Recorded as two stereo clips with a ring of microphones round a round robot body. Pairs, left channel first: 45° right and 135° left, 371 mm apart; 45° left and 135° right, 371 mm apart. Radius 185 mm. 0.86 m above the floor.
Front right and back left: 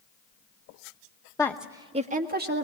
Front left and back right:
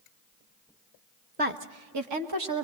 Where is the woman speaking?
110° right, 0.9 m; by 2.6 s 165° right, 1.9 m.